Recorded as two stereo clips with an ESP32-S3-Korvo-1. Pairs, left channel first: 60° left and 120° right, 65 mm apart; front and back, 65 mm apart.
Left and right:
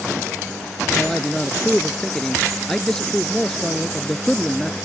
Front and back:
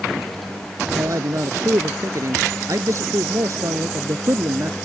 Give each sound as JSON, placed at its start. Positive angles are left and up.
{"t": 1.0, "sound": "a man speaking", "azimuth_deg": 140}